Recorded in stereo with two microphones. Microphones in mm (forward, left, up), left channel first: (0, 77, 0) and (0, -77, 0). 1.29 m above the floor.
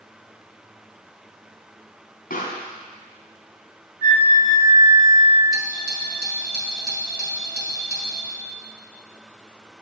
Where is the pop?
70° left (ahead or behind), 3 m.